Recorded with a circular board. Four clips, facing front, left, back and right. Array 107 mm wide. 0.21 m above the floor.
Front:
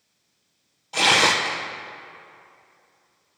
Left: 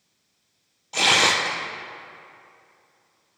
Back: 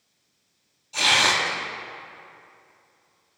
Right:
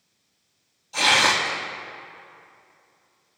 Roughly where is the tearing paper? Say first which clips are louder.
Even, front 3 dB; ahead left.